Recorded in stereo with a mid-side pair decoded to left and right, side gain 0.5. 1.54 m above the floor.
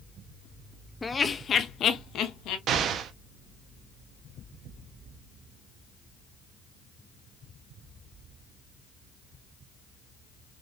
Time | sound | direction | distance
1.0 | laughter | 20° left | 0.7 m
2.7 | an explosion | 60° right | 0.6 m